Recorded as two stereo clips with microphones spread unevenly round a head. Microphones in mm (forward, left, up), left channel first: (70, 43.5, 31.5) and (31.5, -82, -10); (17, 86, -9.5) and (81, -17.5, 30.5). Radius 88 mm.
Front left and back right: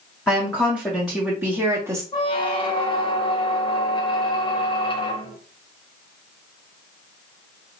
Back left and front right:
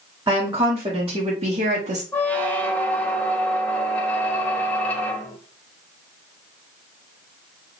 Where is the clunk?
I don't hear a clunk.